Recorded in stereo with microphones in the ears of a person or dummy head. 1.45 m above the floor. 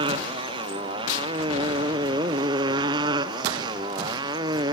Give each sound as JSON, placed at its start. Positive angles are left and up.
{"t": 0.0, "sound": "a motorcycle", "side_deg": -30}